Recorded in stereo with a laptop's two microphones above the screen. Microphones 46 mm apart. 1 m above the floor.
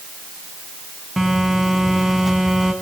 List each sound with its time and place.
1.2 s a phone buzzing: 5° right (ahead or behind), 1.8 m